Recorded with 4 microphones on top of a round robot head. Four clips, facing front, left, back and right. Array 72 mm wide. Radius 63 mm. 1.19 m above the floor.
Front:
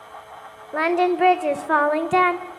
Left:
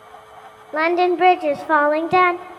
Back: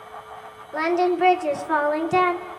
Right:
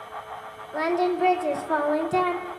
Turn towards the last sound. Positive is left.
turn(degrees=65)